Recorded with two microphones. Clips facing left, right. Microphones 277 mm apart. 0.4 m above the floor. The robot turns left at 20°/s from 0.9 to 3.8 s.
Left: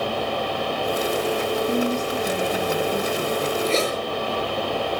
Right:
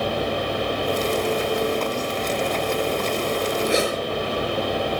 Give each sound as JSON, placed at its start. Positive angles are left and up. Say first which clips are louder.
{"t": 1.7, "sound": "a woman speaking", "louder": "left 2 dB", "azimuth_deg": 115, "distance_m": 3.0}
{"t": 3.7, "sound": "a zipper", "louder": "right 2 dB", "side_deg": -15, "distance_m": 6.0}